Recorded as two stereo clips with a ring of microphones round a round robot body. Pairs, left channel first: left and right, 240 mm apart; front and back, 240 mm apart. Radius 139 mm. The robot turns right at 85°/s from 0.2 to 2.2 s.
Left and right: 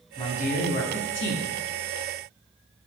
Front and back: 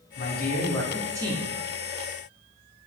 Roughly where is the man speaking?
Ahead left.